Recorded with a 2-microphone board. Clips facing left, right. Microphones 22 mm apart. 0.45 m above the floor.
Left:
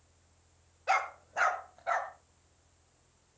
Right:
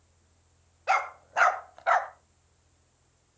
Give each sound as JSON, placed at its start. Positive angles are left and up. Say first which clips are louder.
{"t": 0.9, "sound": "a dog barking", "louder": "right 3 dB", "side_deg": -20, "distance_m": 0.9}